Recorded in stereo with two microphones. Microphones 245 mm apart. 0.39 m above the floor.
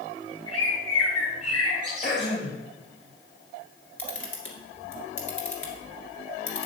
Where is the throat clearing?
40° left (ahead or behind), 2 m.